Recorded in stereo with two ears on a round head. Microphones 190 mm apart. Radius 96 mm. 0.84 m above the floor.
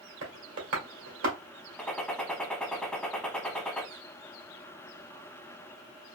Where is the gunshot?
5° left (ahead or behind), 0.9 m.